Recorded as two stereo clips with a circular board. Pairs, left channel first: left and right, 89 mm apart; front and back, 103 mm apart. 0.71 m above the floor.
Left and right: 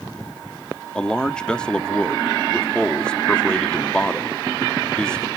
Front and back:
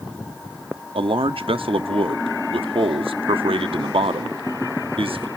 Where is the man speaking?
170° left, 0.9 m.